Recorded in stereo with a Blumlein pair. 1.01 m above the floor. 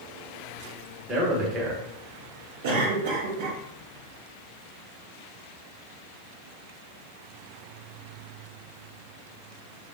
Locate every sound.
1.1 s a man speaking: 30° right, 1.1 m
2.6 s a cough: 50° right, 0.8 m